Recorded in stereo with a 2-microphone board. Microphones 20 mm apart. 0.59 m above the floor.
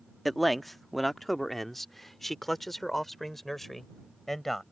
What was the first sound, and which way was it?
A man speaking, 5° left (ahead or behind).